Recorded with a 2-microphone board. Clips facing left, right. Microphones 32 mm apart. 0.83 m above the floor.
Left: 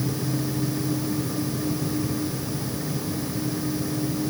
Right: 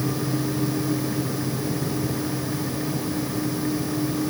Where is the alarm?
No alarm in this recording.